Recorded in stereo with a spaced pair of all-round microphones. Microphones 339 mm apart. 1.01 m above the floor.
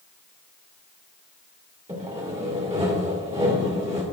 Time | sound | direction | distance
1.9 | sawing | 20° right (ahead or behind) | 1.4 m